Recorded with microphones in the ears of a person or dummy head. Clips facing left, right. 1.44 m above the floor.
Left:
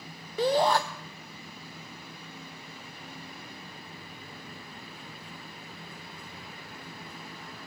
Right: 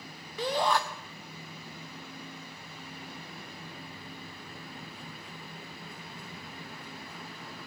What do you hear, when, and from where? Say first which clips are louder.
0.4 s a shout: left 5 dB; 40° left (ahead or behind), 0.7 m